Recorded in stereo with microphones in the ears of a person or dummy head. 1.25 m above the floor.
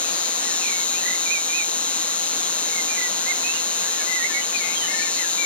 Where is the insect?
5° left (ahead or behind).